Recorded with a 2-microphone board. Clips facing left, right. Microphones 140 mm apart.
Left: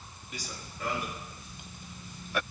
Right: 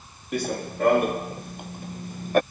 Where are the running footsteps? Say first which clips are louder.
Right 17 dB; 60° right (ahead or behind); by 2.4 s 50° right (ahead or behind).